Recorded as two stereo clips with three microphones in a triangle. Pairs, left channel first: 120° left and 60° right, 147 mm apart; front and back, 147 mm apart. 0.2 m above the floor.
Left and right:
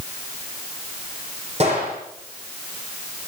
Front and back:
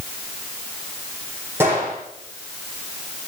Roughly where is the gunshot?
Right.